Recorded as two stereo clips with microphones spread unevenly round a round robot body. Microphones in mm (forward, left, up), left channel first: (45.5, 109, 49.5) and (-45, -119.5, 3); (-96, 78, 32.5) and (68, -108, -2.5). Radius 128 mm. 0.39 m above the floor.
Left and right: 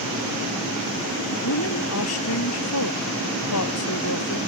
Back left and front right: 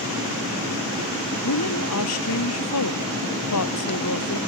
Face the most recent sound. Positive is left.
turn(degrees=100)